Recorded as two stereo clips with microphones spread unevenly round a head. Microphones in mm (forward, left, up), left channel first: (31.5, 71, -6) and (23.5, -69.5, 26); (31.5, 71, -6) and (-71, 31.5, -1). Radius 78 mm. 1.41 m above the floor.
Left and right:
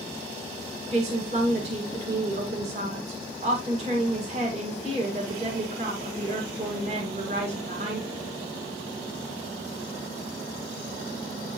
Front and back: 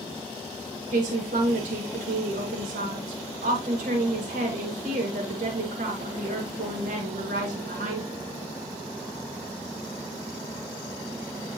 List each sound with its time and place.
0.9 s a woman speaking: 145° right, 1.7 m